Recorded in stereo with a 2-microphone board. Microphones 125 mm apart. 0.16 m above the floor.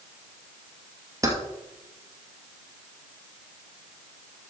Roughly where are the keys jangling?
Right.